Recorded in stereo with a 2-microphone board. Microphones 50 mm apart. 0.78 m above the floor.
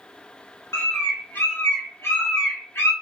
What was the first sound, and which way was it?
A bird, 55° left (ahead or behind).